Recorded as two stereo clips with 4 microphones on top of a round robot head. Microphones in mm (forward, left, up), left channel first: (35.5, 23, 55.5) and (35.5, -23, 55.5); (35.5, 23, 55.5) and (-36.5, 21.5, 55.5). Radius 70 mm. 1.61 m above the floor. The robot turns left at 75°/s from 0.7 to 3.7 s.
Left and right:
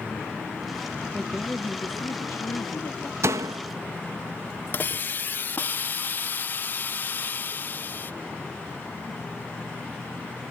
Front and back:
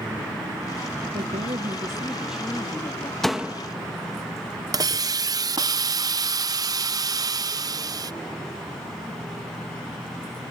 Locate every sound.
1.1 s a woman speaking: 170° right; by 3.1 s 40° left
3.2 s a door slam: 85° right; by 3.6 s 115° right
4.7 s a hiss: 145° left